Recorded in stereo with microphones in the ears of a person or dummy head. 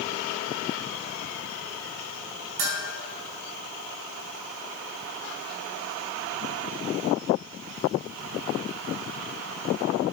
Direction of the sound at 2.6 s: 70° right (ahead or behind).